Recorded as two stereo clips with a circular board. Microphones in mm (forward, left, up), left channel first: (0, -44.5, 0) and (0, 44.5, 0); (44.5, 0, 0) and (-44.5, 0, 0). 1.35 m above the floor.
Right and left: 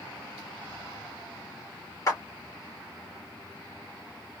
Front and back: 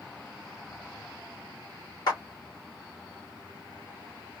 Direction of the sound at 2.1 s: 40° right.